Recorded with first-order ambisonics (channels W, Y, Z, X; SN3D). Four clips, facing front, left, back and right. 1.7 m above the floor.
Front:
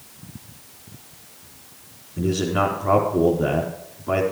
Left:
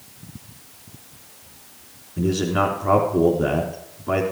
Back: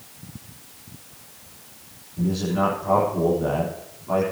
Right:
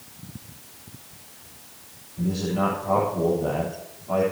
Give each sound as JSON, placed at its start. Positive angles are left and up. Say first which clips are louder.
{"t": 2.2, "sound": "a man speaking", "louder": "left 4 dB, front 2 dB", "azimuth_deg": 50, "distance_m": 4.0}